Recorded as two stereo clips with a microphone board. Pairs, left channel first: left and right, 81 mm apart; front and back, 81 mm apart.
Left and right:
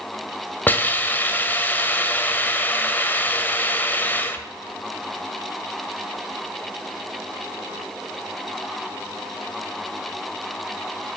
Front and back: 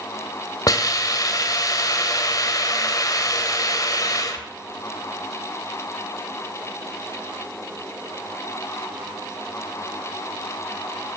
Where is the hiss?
30° left, 1.5 m.